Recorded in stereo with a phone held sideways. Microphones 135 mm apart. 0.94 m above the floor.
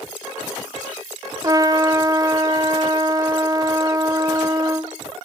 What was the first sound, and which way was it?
A trumpet, 30° right (ahead or behind).